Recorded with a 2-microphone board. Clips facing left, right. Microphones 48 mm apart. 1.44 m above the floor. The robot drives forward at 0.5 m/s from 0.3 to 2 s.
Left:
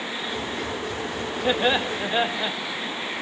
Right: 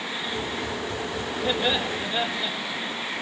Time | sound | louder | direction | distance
1.4 | laughter | left 4 dB | 25° left (ahead or behind) | 1.7 m